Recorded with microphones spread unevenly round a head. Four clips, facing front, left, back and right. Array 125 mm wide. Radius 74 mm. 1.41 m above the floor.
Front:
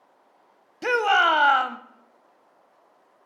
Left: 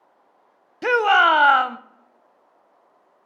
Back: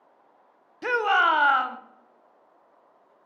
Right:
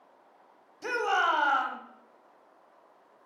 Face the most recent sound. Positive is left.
turn(degrees=60)